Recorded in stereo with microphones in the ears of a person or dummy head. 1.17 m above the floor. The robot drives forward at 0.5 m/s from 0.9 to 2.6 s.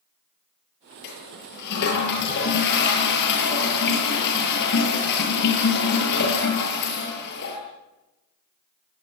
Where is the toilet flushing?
55° left (ahead or behind), 10 m; by 7.6 s 60° left (ahead or behind), 9.5 m.